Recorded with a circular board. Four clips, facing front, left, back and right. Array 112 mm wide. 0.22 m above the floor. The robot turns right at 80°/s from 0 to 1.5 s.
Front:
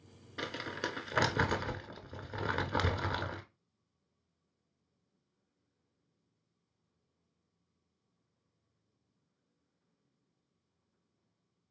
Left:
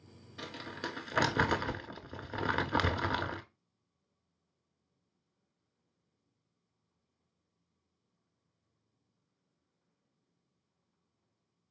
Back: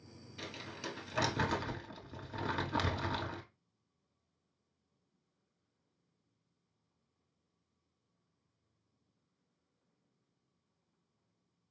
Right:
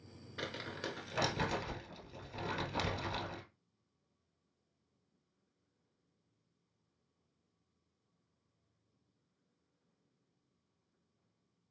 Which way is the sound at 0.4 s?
20° right.